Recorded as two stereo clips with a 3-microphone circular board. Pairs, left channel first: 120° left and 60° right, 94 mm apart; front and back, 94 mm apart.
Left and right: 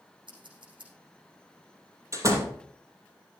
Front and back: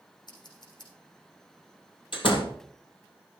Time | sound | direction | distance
0.3 | scissors | 35° right | 7 m
2.1 | a door slam | 10° right | 2.5 m